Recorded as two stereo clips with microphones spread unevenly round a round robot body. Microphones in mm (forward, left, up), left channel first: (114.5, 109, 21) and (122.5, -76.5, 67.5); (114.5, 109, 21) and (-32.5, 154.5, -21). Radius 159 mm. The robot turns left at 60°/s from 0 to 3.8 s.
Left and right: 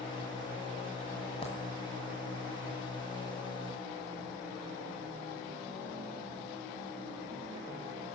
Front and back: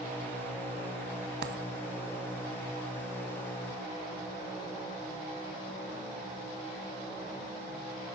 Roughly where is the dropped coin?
Behind.